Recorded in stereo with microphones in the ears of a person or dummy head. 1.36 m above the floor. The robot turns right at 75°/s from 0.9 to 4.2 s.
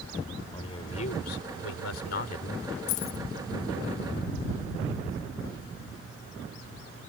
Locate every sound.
0.5 s a man speaking: 35° left; by 2.8 s 175° left
2.9 s keys jangling: 60° left (ahead or behind); by 3.2 s 35° left (ahead or behind)